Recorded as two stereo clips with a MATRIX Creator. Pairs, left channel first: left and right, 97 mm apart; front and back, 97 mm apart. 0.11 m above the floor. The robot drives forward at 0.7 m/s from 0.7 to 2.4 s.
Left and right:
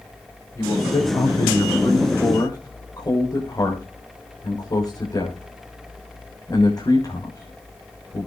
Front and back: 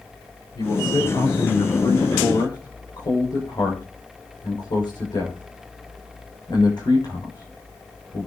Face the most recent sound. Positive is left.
turn(degrees=45)